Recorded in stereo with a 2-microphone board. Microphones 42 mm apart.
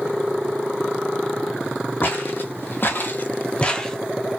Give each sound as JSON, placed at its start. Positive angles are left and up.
{"t": 2.0, "sound": "footsteps", "side_deg": 60, "distance_m": 1.3}